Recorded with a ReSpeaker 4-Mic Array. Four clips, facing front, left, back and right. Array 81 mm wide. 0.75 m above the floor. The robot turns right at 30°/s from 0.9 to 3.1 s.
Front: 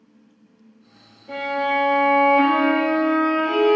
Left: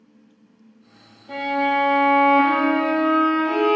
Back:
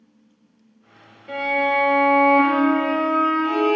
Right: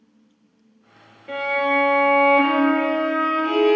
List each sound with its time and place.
1.3 s a violin: 120° right, 2.5 m; by 3.8 s 65° right, 2.5 m